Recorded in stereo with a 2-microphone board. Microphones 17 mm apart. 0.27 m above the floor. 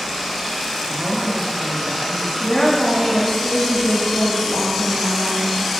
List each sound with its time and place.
0.9 s a woman speaking: 15° right (ahead or behind), 2.5 m
2.4 s a woman speaking: 55° left (ahead or behind), 2.5 m